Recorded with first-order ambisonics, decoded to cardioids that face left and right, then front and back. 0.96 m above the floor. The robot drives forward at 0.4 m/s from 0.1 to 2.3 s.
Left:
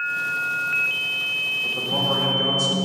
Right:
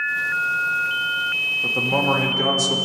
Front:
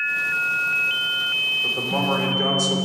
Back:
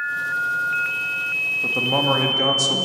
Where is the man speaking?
145° right, 1.8 m; by 2.9 s 150° right, 2.0 m.